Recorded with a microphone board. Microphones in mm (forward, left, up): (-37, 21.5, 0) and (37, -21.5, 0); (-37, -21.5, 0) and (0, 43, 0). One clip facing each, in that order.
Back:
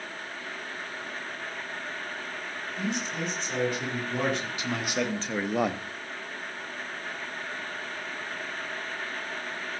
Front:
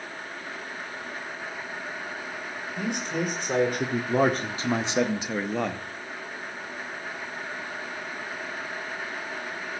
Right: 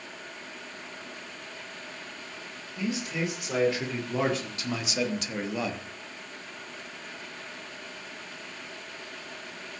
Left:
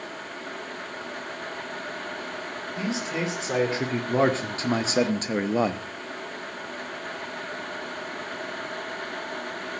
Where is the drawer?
I don't hear a drawer.